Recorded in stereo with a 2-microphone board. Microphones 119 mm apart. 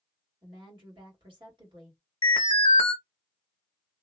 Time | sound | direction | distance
0.4 | a woman speaking | 50° right (ahead or behind) | 1.5 m
2.2 | an alarm | 50° left (ahead or behind) | 0.8 m